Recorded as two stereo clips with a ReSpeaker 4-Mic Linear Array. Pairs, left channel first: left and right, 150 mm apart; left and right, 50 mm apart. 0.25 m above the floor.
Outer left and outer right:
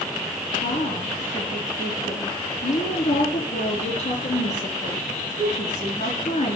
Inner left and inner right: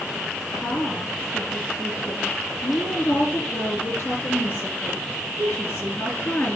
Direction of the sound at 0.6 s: 45° left (ahead or behind).